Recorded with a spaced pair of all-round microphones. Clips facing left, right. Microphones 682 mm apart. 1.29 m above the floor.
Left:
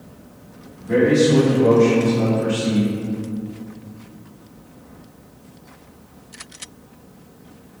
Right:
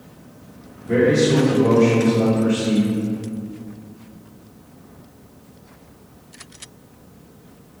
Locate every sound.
0.8 s a man speaking: 40° left (ahead or behind), 1.7 m; by 3.0 s 10° left (ahead or behind), 0.5 m